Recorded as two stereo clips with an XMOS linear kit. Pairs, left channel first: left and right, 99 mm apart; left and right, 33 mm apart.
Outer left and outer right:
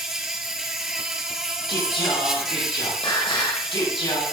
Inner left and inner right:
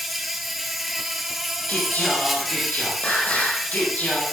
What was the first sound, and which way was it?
An insect, 5° right (ahead or behind).